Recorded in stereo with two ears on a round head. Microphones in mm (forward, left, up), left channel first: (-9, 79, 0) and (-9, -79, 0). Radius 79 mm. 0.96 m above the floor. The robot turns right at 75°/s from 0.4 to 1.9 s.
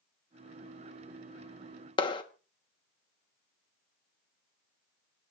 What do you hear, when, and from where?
2.0 s a clap: 30° left (ahead or behind), 1.2 m